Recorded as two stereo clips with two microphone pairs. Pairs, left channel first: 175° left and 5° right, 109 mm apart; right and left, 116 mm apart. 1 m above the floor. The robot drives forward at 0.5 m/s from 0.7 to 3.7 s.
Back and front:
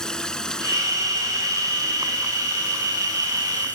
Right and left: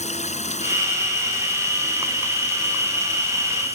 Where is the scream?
No scream in this recording.